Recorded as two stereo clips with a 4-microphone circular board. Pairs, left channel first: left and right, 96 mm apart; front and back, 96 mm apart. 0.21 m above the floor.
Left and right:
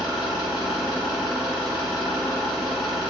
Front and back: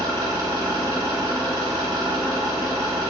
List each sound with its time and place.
0.0 s an engine running: 175° right, 1.4 m